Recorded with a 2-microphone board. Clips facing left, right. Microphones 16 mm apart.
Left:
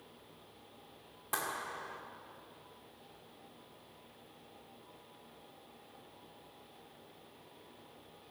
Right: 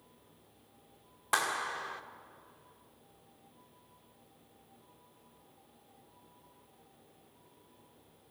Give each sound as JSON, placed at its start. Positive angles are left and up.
{"t": 1.3, "sound": "a clap", "side_deg": -35, "distance_m": 0.9}